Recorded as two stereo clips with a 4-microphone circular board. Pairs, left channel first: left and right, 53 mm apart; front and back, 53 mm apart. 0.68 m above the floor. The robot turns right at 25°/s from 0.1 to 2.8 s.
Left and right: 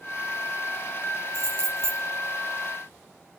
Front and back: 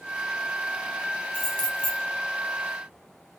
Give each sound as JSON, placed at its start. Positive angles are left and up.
{"t": 1.3, "sound": "keys jangling", "azimuth_deg": -75, "distance_m": 5.0}